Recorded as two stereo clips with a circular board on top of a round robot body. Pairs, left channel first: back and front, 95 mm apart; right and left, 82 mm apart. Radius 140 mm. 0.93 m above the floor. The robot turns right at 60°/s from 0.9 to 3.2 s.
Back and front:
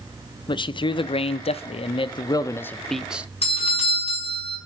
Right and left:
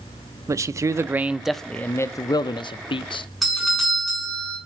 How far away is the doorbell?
About 4.5 m.